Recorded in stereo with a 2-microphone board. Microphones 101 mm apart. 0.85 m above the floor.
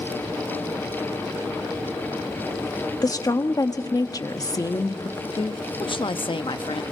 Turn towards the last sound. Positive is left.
turn(degrees=55)  # may be behind; listen again after turning